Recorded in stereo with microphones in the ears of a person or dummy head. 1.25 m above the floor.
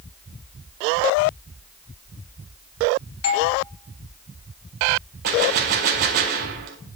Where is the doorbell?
80° left, 1.6 m.